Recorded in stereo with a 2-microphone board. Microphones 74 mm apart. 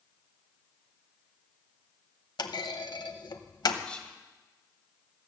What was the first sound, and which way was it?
A clunk, 75° left (ahead or behind).